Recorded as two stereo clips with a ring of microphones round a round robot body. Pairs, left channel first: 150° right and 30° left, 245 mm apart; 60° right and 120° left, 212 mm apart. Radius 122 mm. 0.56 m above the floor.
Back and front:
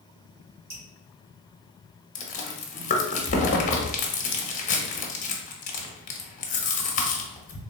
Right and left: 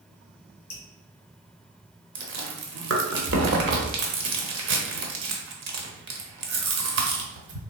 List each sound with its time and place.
0.7 s dripping: 10° right, 1.7 m
2.1 s chewing: 155° left, 0.8 m